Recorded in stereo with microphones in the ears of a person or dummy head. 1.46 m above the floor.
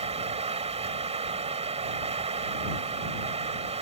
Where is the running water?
35° right (ahead or behind).